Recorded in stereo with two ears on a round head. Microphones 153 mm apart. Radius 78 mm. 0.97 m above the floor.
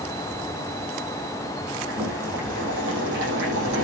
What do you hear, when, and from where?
1.9 s boiling: 85° right, 9.5 m